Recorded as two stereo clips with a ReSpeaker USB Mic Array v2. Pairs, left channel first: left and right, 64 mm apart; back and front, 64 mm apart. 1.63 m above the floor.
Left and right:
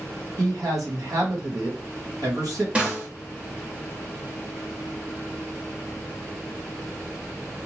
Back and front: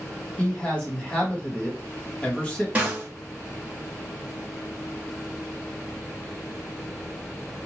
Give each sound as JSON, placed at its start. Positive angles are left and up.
{"t": 0.4, "sound": "a man speaking", "azimuth_deg": -105, "distance_m": 1.4}
{"t": 2.8, "sound": "a snare drum", "azimuth_deg": -40, "distance_m": 1.2}